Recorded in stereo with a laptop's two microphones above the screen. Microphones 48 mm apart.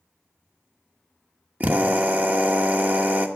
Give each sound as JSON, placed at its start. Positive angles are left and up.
{"t": 1.6, "sound": "a drill", "side_deg": -35, "distance_m": 1.3}